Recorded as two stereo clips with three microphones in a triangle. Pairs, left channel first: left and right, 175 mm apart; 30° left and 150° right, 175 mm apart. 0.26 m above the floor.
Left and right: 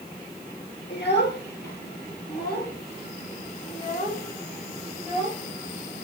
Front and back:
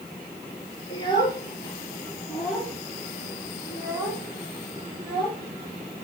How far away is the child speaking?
About 3.5 m.